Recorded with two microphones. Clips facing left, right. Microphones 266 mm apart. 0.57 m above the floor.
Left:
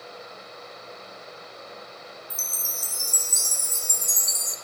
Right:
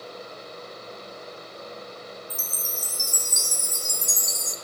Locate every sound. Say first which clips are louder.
2.3 s a chime: right 4 dB; 15° right (ahead or behind), 1.1 m